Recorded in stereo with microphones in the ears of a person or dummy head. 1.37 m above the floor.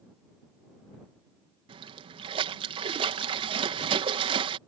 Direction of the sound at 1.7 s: 30° right (ahead or behind).